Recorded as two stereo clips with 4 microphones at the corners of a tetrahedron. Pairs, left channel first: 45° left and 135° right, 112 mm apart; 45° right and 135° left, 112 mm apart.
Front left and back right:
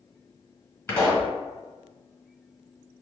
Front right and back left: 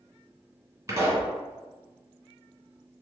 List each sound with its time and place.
0.9 s a pop: 105° left, 1.7 m